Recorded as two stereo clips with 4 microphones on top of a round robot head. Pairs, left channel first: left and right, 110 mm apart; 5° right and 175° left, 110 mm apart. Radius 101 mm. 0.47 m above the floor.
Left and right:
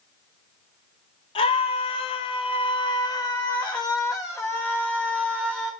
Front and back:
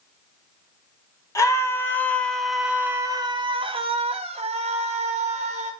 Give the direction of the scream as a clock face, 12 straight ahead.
10 o'clock.